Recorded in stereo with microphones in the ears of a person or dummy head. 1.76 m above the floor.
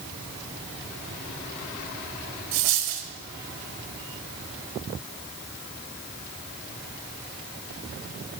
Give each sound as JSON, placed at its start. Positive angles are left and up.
{"t": 2.5, "sound": "a dropped coin", "side_deg": -70, "distance_m": 3.5}